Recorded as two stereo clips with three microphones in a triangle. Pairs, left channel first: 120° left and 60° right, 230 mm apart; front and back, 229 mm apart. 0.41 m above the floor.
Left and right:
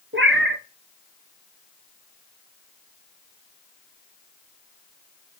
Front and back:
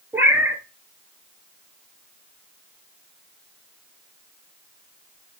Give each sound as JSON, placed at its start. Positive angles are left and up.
{"t": 0.1, "sound": "a cat meowing", "azimuth_deg": -100, "distance_m": 1.1}